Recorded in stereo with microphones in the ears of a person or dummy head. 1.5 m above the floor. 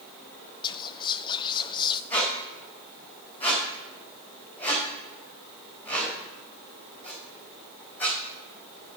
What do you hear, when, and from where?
0.6 s whispering: 25° left (ahead or behind), 0.6 m
2.1 s a squeak: 10° left (ahead or behind), 4 m